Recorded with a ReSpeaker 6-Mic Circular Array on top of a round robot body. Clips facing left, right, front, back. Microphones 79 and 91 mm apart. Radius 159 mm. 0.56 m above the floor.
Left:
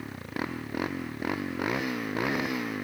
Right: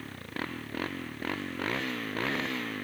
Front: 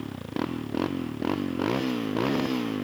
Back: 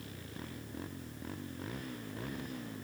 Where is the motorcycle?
15° left.